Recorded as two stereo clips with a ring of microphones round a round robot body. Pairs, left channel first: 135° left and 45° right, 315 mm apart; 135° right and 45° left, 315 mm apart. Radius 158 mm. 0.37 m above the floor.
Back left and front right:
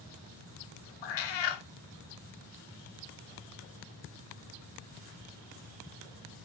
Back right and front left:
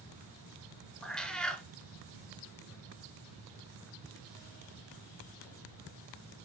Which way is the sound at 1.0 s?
135° left.